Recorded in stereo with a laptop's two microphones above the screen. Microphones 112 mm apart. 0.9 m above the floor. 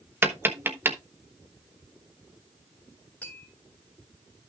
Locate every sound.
0.2 s tapping: 20° right (ahead or behind), 0.9 m
3.2 s tapping: 10° left (ahead or behind), 2.5 m